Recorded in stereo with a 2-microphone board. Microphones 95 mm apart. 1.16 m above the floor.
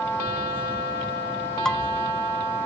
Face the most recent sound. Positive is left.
turn(degrees=5)  # may be behind; listen again after turning